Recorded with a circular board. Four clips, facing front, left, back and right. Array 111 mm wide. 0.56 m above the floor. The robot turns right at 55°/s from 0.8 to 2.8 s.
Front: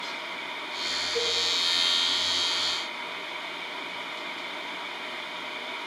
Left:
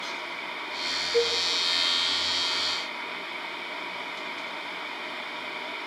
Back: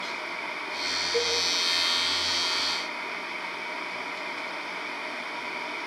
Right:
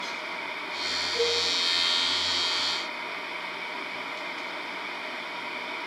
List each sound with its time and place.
1.1 s a cowbell: 135° left, 9.5 m; by 1.4 s 145° left, 9.5 m